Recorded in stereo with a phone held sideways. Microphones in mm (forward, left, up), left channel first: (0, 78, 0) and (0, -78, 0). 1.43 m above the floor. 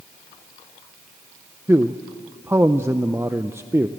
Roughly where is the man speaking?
Centre.